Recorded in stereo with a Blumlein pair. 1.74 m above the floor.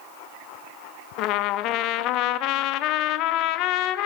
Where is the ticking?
I don't hear ticking.